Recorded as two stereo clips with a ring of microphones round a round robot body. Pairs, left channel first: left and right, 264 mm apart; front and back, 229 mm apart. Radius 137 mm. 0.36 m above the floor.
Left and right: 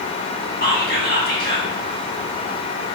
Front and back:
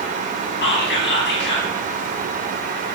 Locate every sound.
0.6 s whispering: 40° left, 2.5 m